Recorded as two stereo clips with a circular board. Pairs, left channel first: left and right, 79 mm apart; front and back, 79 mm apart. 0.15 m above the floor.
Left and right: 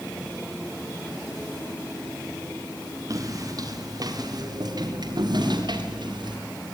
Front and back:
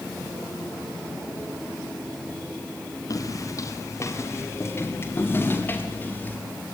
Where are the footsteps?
45° right, 4.5 m; by 6.4 s 70° right, 6.5 m.